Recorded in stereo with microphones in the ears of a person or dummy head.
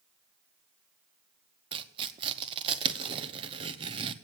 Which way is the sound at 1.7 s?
25° right (ahead or behind).